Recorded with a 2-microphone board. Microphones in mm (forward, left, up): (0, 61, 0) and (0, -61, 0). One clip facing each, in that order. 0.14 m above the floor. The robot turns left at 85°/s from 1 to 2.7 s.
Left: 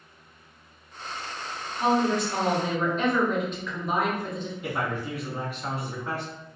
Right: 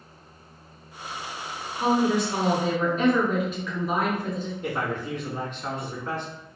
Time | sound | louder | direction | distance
1.8 | a woman speaking | right 1 dB | 90° right | 1.5 m
4.6 | a man speaking | even | 10° left (ahead or behind) | 1.2 m